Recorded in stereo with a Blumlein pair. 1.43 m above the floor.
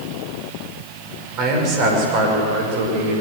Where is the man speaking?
35° right, 6 m; by 3.2 s 55° right, 7.5 m.